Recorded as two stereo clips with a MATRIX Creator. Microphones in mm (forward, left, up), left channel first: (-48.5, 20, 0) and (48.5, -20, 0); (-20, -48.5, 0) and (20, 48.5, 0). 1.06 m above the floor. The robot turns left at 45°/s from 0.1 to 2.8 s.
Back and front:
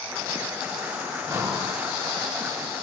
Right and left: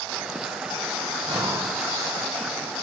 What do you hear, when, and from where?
1.2 s breathing: 35° left, 1.4 m; by 1.8 s 10° left, 1.4 m